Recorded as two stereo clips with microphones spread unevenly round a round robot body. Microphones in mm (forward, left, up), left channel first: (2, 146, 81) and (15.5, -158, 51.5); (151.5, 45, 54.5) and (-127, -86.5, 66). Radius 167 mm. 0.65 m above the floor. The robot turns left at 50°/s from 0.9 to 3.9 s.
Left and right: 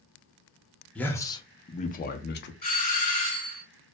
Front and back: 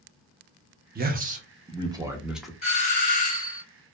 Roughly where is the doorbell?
Ahead left.